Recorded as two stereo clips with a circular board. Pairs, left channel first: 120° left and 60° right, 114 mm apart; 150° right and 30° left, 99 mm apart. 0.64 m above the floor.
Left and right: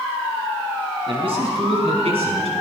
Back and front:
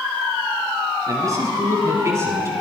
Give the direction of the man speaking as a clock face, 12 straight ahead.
1 o'clock.